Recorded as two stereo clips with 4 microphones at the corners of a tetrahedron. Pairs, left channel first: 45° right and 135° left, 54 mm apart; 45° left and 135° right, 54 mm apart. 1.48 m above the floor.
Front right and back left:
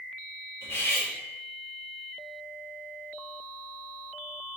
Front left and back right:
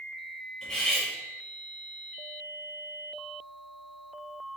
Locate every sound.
0.6 s cutlery clinking: 40° right, 1.1 m